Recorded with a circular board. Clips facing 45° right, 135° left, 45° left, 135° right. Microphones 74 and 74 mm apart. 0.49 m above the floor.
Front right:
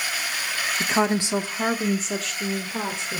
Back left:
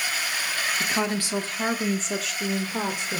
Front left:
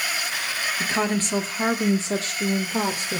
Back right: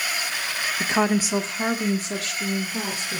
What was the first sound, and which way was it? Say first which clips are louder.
A woman speaking: front right 7 dB, back right 3 dB; 85° right.